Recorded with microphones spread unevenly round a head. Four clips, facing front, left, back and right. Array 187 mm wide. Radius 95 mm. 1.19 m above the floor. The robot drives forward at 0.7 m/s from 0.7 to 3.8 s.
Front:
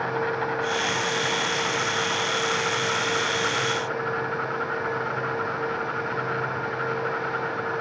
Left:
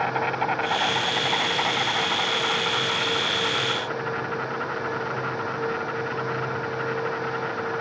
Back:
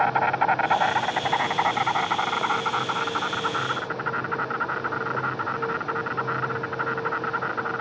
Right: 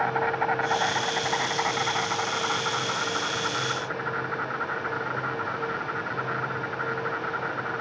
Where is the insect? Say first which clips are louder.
Even, back 5 dB; 175° right.